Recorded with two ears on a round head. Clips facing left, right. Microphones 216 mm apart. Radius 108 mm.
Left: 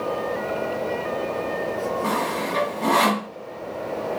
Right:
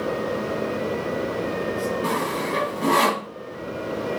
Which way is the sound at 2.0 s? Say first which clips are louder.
Even; 30° right (ahead or behind).